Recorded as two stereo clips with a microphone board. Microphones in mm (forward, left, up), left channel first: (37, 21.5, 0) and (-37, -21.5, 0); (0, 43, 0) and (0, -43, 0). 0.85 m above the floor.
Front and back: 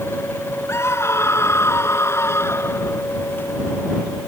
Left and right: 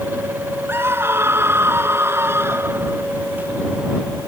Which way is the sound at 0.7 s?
30° right.